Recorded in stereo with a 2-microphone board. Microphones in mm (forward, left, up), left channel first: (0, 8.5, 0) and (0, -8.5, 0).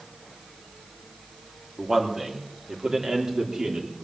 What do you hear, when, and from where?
1.8 s a man speaking: 35° right (ahead or behind), 3 m; by 3.9 s 55° right (ahead or behind), 3.5 m